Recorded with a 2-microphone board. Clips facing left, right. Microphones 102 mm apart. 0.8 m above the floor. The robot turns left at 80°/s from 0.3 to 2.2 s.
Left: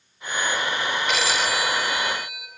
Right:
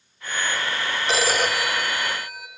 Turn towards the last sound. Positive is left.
turn(degrees=-125)